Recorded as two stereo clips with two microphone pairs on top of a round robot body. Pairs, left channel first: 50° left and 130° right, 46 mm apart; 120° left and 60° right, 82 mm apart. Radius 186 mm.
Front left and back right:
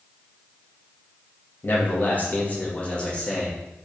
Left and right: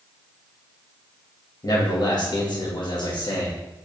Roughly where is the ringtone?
No ringtone in this recording.